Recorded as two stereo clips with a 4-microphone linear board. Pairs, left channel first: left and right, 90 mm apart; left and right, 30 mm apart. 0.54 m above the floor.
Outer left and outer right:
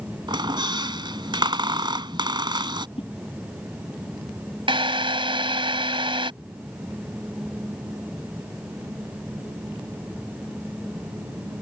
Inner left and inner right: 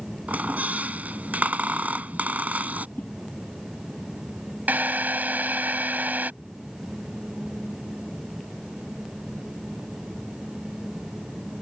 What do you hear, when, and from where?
0.3 s a squeak: 55° right (ahead or behind)
3.0 s a whoosh: 75° left (ahead or behind)
4.7 s a drill: 65° right (ahead or behind)